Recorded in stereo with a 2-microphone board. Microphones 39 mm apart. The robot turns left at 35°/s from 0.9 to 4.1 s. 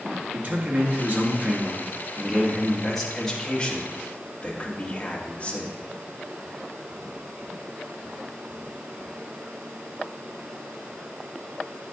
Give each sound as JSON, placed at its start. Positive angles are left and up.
{"t": 0.3, "sound": "a man speaking", "azimuth_deg": -110, "distance_m": 1.4}